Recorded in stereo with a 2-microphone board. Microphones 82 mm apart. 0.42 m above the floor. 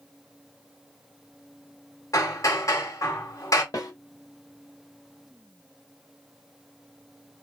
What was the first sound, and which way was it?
Hammering, 45° left (ahead or behind).